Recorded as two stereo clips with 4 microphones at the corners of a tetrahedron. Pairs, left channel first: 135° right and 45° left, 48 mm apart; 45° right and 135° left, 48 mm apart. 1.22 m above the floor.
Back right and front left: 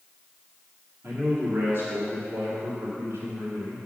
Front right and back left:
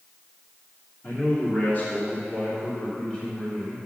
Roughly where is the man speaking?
Ahead.